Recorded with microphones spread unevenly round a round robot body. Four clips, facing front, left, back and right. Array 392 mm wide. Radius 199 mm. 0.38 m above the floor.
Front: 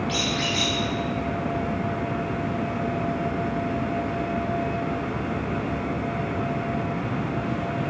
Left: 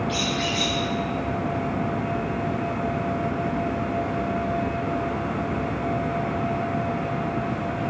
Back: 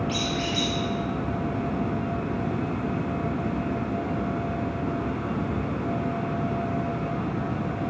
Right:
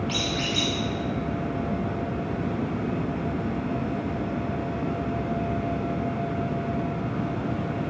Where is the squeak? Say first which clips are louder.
Left 3 dB, front 1 dB; 85° right, 1.2 m.